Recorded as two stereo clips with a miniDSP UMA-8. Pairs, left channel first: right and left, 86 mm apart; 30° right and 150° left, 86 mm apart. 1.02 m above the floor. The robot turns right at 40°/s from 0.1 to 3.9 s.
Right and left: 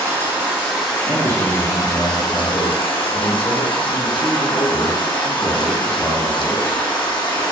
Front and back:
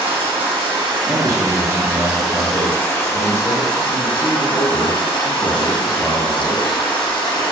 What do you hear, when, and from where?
0.0 s running water: 150° left, 0.8 m; by 7.5 s 60° right, 0.8 m
1.1 s a man speaking: 110° left, 0.7 m; by 6.8 s 135° right, 0.7 m